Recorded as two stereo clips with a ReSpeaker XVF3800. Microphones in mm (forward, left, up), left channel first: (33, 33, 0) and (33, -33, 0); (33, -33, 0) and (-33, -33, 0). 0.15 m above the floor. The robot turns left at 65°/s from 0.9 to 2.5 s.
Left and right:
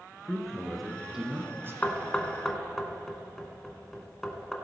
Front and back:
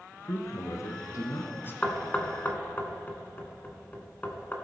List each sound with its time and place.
0.2 s a man speaking: 5° left, 1.6 m; by 1.7 s 50° right, 1.6 m
1.8 s knocking: 55° left, 1.2 m; by 4.5 s 10° left, 1.2 m